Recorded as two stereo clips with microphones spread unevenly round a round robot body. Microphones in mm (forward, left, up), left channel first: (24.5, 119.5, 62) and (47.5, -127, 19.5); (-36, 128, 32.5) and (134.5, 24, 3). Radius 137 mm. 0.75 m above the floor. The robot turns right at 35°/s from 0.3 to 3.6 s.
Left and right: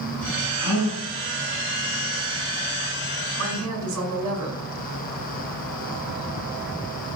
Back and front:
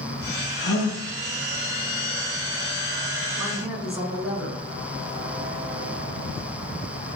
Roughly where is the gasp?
Behind left.